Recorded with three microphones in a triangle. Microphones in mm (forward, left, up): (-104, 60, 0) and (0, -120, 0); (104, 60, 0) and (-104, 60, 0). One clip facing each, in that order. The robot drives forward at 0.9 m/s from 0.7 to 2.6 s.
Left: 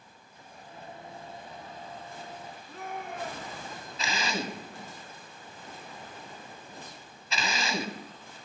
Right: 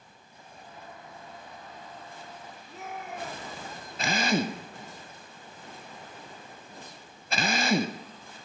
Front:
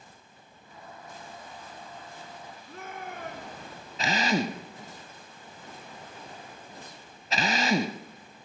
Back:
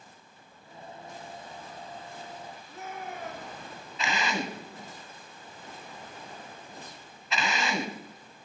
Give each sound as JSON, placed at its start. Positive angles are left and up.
{"t": 2.7, "sound": "a shout", "azimuth_deg": 25, "distance_m": 4.5}
{"t": 4.0, "sound": "a drill", "azimuth_deg": -45, "distance_m": 1.0}